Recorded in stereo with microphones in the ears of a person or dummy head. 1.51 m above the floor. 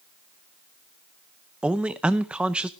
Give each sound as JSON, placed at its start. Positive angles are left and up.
{"t": 1.6, "sound": "a man speaking", "side_deg": -5, "distance_m": 0.7}